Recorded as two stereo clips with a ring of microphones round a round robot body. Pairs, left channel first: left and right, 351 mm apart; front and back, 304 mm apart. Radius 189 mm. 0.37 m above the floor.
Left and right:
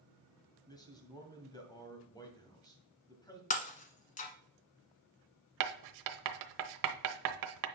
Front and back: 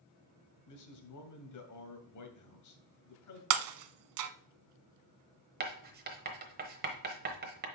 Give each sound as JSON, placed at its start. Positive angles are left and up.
{"t": 0.7, "sound": "a man speaking", "azimuth_deg": 10, "distance_m": 2.0}
{"t": 3.5, "sound": "breaking glass", "azimuth_deg": 160, "distance_m": 0.7}
{"t": 5.6, "sound": "writing", "azimuth_deg": -120, "distance_m": 0.9}